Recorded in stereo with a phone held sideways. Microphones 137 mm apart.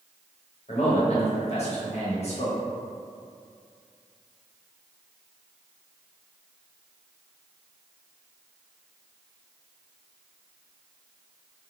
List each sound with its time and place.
0.7 s a man speaking: 50° left (ahead or behind), 1.0 m